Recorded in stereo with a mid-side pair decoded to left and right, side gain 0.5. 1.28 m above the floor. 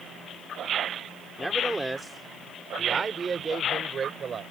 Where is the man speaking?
10° right; by 4.4 s 45° right.